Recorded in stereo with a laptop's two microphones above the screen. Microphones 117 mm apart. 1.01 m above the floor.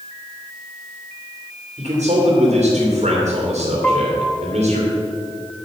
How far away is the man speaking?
About 2.5 m.